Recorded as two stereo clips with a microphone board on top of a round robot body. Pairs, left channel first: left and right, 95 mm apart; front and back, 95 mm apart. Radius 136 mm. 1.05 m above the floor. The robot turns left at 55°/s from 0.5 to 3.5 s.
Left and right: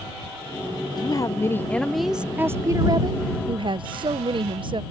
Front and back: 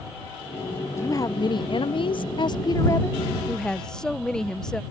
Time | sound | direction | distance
1.0 | a woman speaking | 55° left | ?